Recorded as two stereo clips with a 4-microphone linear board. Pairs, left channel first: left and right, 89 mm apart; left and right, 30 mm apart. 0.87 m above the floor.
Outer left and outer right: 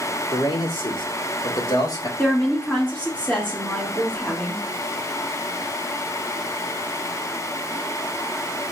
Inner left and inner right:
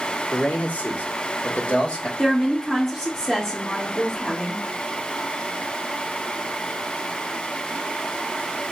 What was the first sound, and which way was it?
A man speaking, 80° left.